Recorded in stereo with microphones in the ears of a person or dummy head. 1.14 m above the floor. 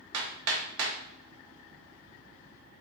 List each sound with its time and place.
0.1 s hammering: 75° right (ahead or behind), 0.6 m